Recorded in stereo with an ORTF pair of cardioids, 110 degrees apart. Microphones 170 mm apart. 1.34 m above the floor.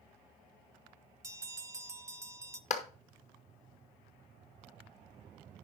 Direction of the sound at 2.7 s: 50° left.